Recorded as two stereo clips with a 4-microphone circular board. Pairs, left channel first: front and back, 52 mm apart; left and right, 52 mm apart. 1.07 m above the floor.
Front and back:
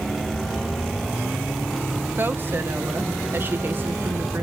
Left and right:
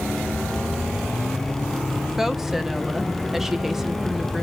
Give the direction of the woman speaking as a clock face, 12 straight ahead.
6 o'clock.